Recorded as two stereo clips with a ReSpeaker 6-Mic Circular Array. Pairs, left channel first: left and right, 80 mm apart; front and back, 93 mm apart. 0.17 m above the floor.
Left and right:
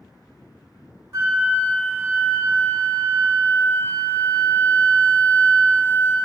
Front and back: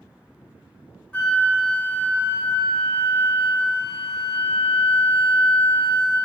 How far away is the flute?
About 0.8 m.